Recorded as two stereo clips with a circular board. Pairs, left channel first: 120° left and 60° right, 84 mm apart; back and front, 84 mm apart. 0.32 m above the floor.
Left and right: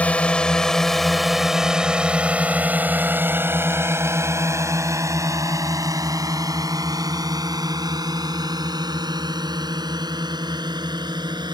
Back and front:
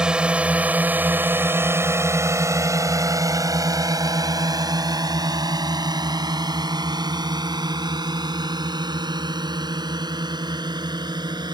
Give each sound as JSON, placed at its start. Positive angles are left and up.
{"t": 0.0, "sound": "a drone", "azimuth_deg": 65}